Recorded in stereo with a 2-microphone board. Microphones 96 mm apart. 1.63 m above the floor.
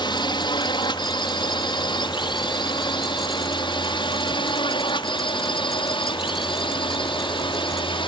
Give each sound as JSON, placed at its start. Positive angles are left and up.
{"t": 0.0, "sound": "a drone", "side_deg": 60}